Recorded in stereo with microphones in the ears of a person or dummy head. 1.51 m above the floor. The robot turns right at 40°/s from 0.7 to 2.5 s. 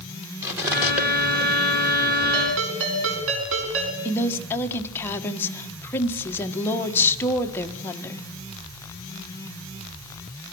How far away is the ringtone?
About 6 m.